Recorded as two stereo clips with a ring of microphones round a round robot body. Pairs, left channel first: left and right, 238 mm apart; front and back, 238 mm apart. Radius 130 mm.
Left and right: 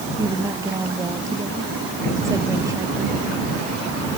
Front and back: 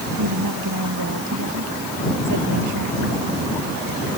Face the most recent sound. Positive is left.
turn(degrees=-165)